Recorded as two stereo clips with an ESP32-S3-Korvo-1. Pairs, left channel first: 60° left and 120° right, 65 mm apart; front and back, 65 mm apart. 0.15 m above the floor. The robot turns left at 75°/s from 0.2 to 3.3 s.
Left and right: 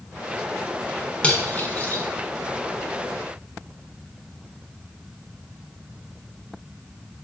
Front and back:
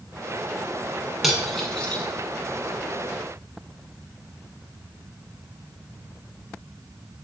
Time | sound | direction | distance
1.2 | cutlery clinking | 95° left | 0.7 m